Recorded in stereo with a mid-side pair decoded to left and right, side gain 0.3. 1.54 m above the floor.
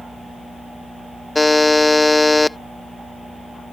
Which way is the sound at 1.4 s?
25° left.